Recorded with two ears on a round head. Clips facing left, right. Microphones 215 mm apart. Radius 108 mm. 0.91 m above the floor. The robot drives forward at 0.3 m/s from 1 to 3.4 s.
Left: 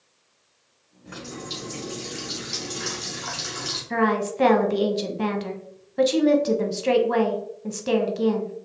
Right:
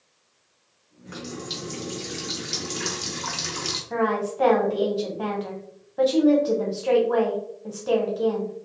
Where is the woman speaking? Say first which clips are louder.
Left 1 dB; 30° left (ahead or behind), 0.6 m.